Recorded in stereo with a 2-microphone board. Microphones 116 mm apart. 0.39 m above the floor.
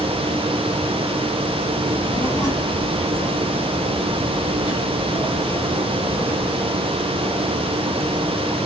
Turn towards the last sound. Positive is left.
turn(degrees=55)  # may be behind; listen again after turning